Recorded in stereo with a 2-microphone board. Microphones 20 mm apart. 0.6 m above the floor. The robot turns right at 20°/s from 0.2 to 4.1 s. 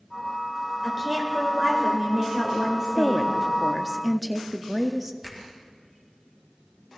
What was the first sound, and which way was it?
A woman speaking, 165° right.